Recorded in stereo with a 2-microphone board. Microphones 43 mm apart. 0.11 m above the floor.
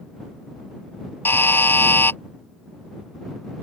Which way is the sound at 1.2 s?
60° left (ahead or behind).